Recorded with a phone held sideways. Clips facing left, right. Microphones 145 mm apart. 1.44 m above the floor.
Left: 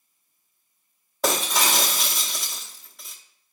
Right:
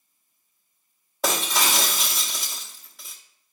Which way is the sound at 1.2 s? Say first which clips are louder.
Left 1 dB; centre (ahead or behind).